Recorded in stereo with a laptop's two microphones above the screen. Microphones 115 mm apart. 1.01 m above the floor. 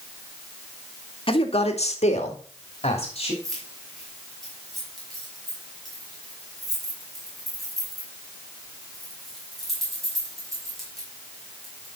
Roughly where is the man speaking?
Left.